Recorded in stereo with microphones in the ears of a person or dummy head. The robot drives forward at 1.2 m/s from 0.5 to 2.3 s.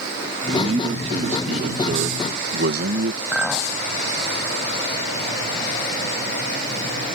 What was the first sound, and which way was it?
A man speaking, 30° right (ahead or behind).